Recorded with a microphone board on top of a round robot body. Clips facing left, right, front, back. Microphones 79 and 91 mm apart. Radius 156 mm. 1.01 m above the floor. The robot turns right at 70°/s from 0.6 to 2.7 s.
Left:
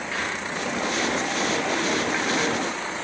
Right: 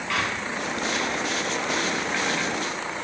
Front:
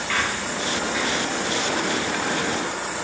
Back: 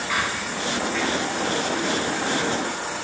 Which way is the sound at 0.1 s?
105° right.